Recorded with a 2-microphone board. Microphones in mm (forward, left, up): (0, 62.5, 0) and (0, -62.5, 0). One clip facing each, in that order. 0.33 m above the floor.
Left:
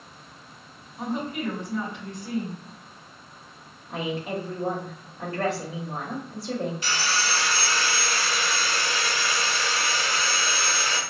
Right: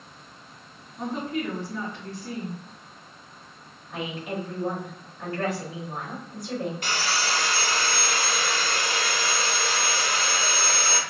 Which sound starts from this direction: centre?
A woman speaking, at 1.0 s.